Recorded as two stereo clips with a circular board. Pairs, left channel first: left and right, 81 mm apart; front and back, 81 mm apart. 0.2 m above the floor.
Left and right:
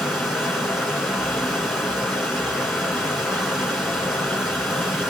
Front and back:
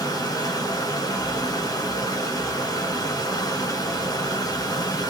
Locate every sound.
0.0 s running water: straight ahead, 1.5 m